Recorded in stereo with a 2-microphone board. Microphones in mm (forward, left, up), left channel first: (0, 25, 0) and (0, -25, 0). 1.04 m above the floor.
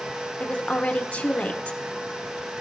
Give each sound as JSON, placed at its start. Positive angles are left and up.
{"t": 0.4, "sound": "a woman speaking", "side_deg": 25, "distance_m": 0.9}